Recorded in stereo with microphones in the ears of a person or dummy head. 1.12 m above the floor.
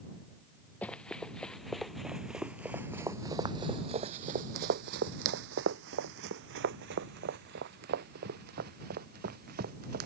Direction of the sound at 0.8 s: 5° left (ahead or behind).